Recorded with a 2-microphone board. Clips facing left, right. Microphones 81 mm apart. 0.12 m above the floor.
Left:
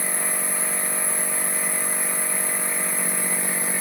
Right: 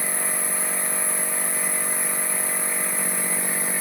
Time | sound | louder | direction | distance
0.0 | an insect | even | 50° left (ahead or behind) | 1.2 m